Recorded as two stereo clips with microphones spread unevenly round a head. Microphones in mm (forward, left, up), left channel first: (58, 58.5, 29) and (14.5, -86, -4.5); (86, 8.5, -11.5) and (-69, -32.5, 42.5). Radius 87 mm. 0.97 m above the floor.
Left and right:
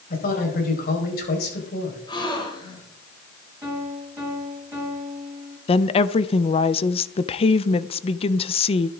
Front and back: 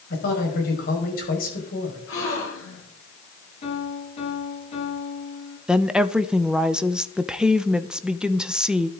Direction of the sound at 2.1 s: 15° left.